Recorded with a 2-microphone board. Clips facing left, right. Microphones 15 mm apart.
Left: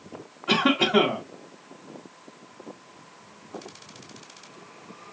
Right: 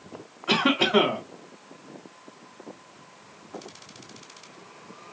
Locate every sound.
0.5 s a cough: 20° right (ahead or behind), 3.5 m